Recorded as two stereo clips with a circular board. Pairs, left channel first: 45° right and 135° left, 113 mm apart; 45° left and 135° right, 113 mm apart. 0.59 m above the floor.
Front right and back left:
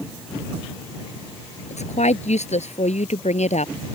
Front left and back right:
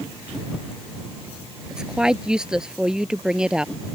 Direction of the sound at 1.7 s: 50° right.